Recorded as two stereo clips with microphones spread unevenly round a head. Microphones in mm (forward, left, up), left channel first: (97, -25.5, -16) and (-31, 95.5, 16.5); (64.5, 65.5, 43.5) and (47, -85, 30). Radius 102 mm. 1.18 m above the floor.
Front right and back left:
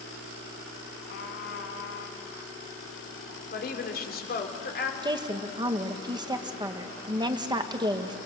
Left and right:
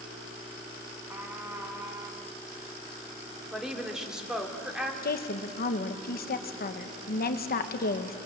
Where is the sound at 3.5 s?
10° right, 3 m.